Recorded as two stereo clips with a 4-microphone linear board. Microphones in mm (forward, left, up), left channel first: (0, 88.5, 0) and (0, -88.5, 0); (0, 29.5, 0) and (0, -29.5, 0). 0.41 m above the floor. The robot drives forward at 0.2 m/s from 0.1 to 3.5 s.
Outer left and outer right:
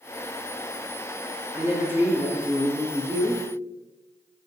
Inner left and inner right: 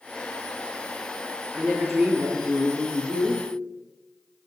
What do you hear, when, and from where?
1.5 s a woman speaking: 15° right (ahead or behind), 1.0 m